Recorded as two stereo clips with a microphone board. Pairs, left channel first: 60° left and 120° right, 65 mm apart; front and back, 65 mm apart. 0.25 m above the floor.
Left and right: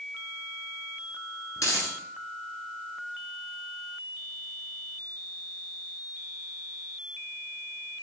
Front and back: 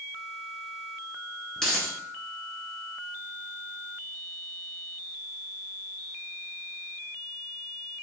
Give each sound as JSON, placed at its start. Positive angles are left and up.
{"t": 1.6, "sound": "a dropped coin", "azimuth_deg": 80, "distance_m": 1.1}